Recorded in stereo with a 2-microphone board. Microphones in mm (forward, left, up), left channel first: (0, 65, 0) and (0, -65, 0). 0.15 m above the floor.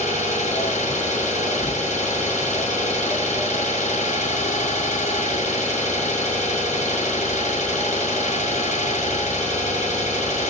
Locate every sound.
0.0 s an engine running: 65° left (ahead or behind), 1.6 m